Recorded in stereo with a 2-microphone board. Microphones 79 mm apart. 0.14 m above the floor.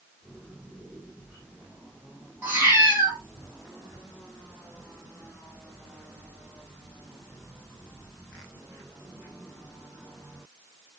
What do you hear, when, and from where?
2.4 s a cat meowing: 25° right (ahead or behind), 1.9 m